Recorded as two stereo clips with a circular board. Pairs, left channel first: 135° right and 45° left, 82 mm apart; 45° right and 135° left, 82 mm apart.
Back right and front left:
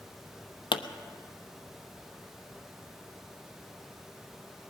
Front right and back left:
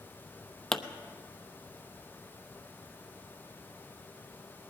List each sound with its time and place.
0.7 s a pop: 130° right, 0.7 m